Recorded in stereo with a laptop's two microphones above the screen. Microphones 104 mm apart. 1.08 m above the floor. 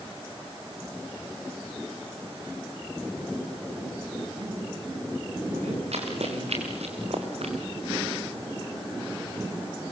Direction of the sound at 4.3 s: 90° right.